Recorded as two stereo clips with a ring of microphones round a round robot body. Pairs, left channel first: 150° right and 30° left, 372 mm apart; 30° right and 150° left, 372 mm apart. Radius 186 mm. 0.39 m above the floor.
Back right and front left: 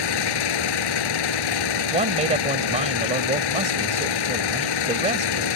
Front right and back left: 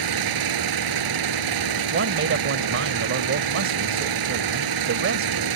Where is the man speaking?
100° left.